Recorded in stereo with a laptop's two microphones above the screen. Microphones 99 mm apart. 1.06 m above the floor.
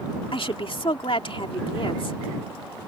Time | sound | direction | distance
0.3 | a woman speaking | 60° left (ahead or behind) | ?